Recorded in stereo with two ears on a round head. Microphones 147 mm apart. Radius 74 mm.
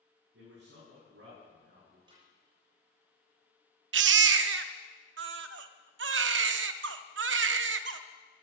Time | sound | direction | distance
0.3 | a man speaking | 75° right (ahead or behind) | 8.5 m
2.1 | a snare drum | 30° right (ahead or behind) | 7 m
3.9 | a baby crying | 85° right | 0.7 m